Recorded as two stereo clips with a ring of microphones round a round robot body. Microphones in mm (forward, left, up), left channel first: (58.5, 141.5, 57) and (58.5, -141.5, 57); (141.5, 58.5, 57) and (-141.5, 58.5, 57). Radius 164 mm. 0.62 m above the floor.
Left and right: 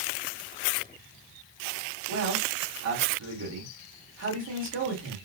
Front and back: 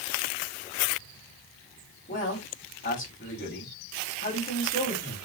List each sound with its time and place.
2.1 s a man speaking: 60° right, 2 m